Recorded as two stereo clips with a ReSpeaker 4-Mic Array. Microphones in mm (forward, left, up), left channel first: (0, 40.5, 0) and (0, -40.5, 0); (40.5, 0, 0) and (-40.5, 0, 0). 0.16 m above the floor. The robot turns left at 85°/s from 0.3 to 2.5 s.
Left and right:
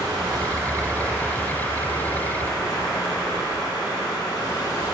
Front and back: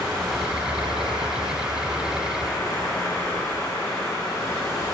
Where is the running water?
120° right, 3.5 m; by 4.9 s 55° left, 3.5 m.